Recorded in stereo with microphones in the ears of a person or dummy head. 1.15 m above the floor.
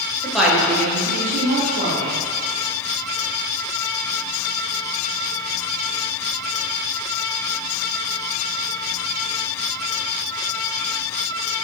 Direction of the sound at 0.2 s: 5° left (ahead or behind).